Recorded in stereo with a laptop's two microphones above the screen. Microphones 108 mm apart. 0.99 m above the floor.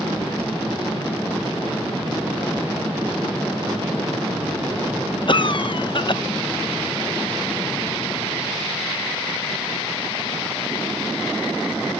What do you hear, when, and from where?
5.3 s a cough: 50° left (ahead or behind)